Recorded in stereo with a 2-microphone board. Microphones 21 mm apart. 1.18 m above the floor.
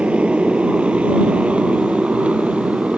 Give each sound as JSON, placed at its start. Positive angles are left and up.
{"t": 0.0, "sound": "a motorcycle", "side_deg": -70}